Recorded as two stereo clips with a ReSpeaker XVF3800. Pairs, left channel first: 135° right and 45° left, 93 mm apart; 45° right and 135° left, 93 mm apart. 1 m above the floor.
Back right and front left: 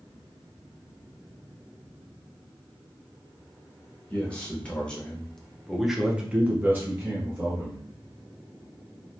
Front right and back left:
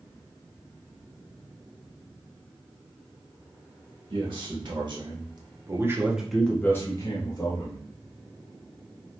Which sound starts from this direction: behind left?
A man speaking, at 4.1 s.